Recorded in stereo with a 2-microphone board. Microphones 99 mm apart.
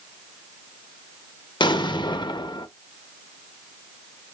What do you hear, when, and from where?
1.6 s an explosion: 50° left (ahead or behind), 0.5 m